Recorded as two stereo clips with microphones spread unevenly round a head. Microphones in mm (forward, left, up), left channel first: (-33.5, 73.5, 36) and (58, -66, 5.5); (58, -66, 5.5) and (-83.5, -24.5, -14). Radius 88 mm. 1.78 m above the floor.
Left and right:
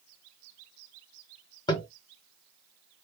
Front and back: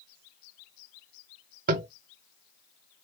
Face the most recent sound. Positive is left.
turn(degrees=180)